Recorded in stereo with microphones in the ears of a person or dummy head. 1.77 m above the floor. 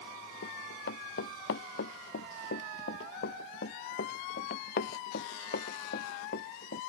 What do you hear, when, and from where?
0.4 s running footsteps: 60° left (ahead or behind); by 6.8 s 55° left (ahead or behind)